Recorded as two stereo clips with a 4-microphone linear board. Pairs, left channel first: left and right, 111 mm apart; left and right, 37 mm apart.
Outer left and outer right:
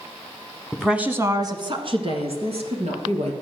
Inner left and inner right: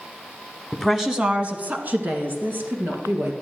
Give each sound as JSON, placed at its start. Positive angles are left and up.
{"t": 0.7, "sound": "a woman speaking", "side_deg": 5, "distance_m": 1.2}